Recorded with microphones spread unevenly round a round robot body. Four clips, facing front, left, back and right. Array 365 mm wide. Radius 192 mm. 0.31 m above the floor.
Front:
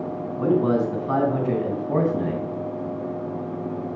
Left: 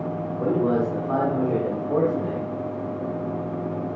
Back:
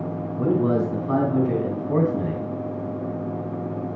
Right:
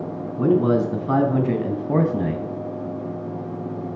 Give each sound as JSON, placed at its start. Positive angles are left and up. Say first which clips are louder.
{"t": 0.4, "sound": "a man speaking", "louder": "right 4 dB, front 1 dB", "azimuth_deg": -115, "distance_m": 3.0}